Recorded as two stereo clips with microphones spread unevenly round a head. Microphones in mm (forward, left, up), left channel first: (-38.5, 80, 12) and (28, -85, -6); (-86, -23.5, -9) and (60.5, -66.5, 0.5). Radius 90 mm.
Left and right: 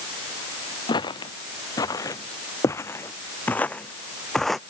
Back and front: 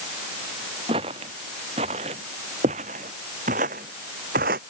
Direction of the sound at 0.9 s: 45° left.